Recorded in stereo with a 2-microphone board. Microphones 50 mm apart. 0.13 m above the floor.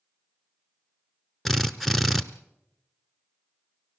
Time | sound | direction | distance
1.4 | a drill | 5° left (ahead or behind) | 0.8 m